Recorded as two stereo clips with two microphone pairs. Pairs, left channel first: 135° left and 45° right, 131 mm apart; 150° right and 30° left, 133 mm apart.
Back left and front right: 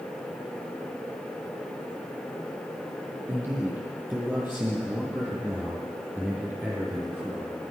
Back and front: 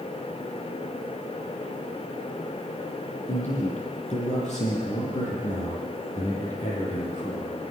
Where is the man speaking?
120° right, 8 m; by 7.5 s 125° right, 11 m.